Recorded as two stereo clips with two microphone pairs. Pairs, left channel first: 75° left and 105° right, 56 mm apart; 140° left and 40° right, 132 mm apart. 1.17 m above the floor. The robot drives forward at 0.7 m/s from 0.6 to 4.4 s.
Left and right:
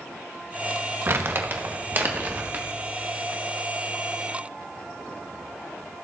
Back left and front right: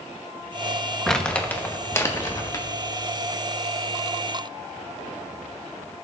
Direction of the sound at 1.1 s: 135° right.